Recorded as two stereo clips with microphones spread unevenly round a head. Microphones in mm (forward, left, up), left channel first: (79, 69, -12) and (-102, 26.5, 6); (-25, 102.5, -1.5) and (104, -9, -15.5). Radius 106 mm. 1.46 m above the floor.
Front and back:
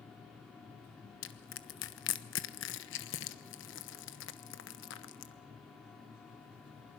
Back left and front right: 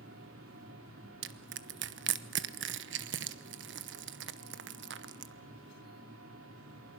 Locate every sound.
0.0 s a machine running: 75° right, 3.5 m
1.2 s crushing: 25° right, 1.0 m